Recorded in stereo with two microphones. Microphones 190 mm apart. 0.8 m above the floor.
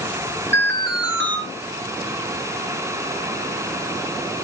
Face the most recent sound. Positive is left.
turn(degrees=-75)  # may be behind; listen again after turning